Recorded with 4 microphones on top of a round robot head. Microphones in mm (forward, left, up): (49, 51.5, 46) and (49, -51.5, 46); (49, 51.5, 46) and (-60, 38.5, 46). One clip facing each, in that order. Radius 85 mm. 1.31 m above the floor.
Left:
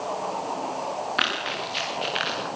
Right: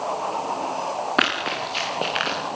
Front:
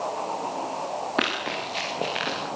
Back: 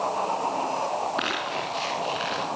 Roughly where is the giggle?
I don't hear a giggle.